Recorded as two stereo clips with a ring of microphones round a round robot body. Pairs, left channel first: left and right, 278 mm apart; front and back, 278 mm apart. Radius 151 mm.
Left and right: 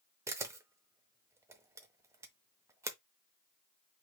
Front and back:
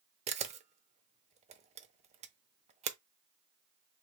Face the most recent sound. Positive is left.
turn(degrees=-155)